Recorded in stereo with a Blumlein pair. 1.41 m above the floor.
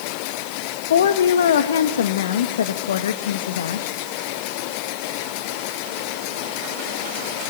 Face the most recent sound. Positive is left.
turn(degrees=60)